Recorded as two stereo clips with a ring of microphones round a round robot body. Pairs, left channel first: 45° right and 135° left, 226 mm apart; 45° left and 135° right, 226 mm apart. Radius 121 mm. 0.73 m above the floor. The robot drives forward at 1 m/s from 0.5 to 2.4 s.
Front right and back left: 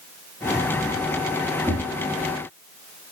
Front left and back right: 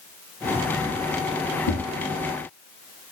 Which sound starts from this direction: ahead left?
Tapping, at 1.7 s.